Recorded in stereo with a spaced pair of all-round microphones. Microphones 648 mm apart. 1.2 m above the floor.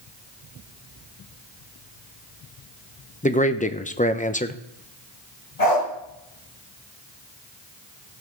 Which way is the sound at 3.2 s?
10° left (ahead or behind).